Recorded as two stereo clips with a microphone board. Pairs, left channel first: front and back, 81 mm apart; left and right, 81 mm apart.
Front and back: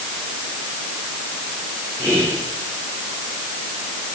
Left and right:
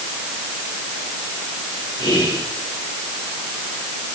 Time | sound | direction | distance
2.0 | whispering | 125° left | 8.5 m